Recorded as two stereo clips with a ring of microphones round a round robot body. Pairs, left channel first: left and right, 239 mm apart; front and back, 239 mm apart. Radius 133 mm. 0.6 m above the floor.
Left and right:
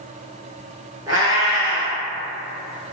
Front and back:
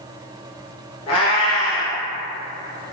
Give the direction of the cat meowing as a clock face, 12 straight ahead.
1 o'clock.